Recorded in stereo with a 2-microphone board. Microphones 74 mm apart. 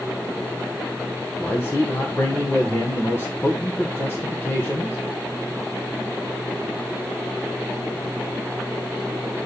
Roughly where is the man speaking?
Left.